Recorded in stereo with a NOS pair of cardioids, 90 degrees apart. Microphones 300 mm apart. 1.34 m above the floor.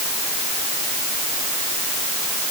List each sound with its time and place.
Only background noise.